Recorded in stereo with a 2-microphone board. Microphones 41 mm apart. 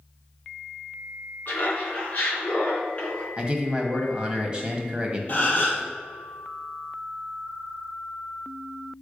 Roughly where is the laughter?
Left.